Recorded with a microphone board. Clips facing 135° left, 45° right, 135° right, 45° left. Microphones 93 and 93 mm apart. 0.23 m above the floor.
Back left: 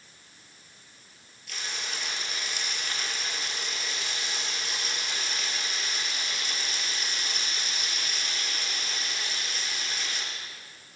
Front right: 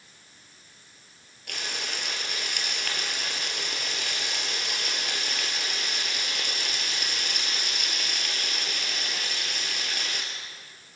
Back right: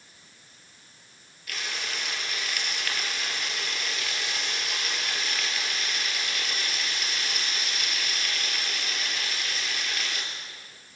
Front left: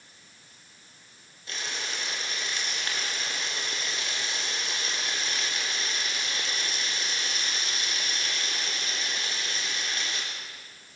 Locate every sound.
1.5 s frying: 20° right, 3.5 m